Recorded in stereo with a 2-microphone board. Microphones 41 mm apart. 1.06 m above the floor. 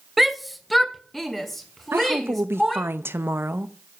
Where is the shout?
5° right (ahead or behind), 0.5 m; by 2.9 s 5° left (ahead or behind), 2 m.